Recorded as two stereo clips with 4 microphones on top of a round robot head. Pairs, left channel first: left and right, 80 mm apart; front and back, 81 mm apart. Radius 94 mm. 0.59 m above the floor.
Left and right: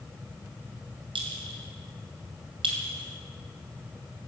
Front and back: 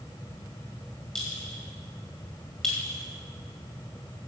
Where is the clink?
90° right, 2.0 m.